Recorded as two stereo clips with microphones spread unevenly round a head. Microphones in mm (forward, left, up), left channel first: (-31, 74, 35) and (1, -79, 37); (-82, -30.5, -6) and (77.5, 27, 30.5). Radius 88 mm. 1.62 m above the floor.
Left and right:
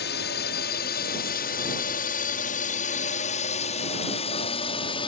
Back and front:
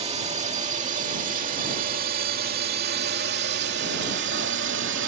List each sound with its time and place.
0.0 s a drone: 80° left; by 5.1 s 40° left